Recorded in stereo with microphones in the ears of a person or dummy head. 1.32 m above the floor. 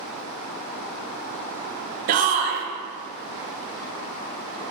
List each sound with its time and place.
2.1 s a shout: 40° right (ahead or behind), 0.6 m